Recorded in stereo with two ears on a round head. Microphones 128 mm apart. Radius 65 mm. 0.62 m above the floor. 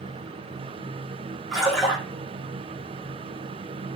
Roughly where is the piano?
I don't hear a piano.